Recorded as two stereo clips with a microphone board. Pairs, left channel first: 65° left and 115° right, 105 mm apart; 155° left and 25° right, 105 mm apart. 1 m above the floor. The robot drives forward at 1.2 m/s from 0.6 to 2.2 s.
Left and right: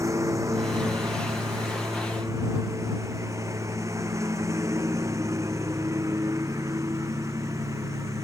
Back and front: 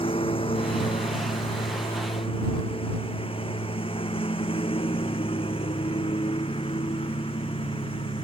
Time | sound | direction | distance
0.0 | a lawn mower | 175° right | ?